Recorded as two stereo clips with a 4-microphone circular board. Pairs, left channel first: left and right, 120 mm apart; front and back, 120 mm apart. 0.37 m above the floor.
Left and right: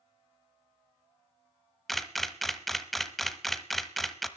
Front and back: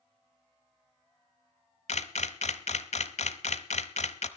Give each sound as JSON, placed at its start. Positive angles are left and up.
{"t": 1.9, "sound": "a camera shutter", "azimuth_deg": 0, "distance_m": 0.9}